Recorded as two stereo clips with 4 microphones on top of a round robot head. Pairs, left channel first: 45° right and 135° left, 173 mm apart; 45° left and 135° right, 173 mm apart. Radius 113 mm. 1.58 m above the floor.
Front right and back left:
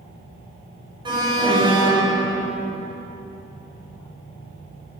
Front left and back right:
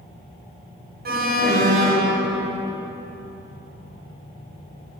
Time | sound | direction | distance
1.1 | an alarm | 165° right | 3 m